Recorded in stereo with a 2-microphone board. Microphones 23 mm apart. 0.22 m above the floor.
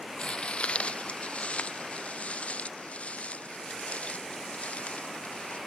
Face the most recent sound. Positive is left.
turn(degrees=85)